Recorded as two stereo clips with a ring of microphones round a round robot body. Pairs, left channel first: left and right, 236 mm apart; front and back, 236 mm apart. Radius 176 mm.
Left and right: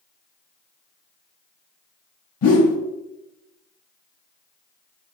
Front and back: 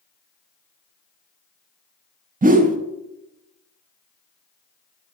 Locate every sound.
2.4 s a whoosh: 120° left, 0.5 m